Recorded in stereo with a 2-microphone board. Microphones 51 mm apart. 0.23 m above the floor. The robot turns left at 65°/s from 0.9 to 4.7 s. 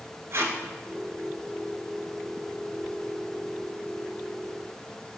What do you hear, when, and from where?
0.3 s tape being pulled: 60° right (ahead or behind), 0.6 m